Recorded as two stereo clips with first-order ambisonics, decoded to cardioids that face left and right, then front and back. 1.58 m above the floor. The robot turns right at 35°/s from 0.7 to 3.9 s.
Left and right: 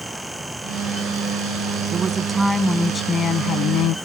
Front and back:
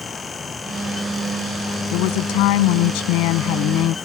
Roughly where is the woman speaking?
Ahead right.